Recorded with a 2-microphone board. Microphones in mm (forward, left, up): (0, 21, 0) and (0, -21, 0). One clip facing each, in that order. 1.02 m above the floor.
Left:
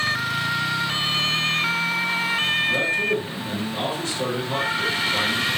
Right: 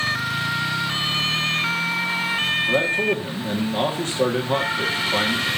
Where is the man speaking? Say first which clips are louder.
Right 1 dB; 45° right (ahead or behind), 1.7 m.